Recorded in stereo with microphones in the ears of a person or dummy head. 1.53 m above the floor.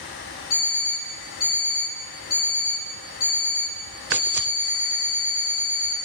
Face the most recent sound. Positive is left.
turn(degrees=30)  # may be behind; listen again after turning